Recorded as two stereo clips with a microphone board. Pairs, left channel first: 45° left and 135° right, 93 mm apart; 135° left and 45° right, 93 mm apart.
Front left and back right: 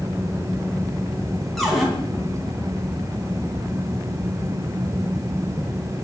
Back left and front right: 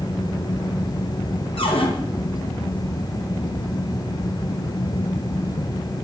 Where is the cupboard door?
135° left, 3 m.